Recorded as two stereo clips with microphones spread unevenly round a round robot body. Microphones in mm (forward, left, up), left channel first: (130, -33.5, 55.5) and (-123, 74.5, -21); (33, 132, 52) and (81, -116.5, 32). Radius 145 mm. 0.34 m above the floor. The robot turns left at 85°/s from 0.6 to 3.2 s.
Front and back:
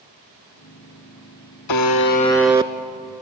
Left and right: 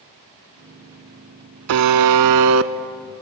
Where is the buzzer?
45° right, 0.7 m; by 2.7 s 130° right, 0.7 m.